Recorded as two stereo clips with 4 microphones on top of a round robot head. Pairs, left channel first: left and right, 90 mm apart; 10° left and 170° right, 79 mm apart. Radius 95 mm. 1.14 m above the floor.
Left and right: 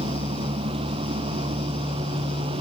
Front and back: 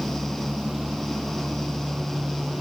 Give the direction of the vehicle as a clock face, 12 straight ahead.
3 o'clock.